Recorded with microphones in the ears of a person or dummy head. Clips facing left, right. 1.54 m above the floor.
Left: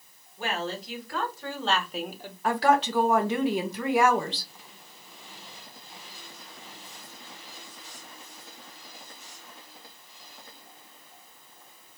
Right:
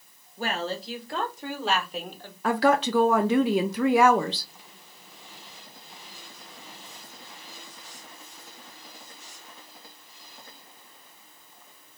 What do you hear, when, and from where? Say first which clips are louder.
0.4 s a woman speaking: right 2 dB; 35° right (ahead or behind), 1.7 m; by 2.3 s 15° left (ahead or behind), 0.9 m
2.4 s a woman speaking: right 1 dB; 65° right (ahead or behind), 0.6 m